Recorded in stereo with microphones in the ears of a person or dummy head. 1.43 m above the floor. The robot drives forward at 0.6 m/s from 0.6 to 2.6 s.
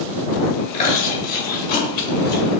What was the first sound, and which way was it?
Chewing, 40° left (ahead or behind).